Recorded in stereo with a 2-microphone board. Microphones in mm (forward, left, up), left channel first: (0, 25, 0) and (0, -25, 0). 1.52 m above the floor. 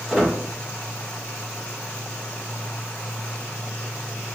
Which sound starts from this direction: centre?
A squeak, at 0.1 s.